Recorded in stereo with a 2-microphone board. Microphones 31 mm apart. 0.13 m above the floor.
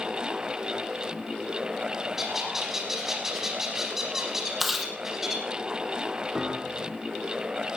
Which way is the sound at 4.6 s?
5° right (ahead or behind).